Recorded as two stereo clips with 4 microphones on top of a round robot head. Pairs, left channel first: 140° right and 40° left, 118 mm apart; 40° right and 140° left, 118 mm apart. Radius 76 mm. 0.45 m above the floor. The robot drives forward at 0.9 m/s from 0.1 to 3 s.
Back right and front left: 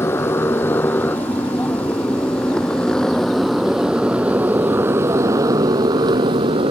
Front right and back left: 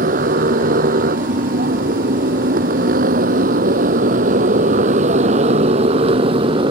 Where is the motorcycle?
150° left; by 6.7 s 90° left.